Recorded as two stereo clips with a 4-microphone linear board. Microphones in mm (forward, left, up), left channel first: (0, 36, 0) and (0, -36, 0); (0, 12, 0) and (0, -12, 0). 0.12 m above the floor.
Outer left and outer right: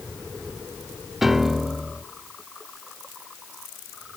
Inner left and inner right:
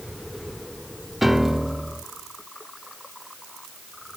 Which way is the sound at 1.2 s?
5° right (ahead or behind).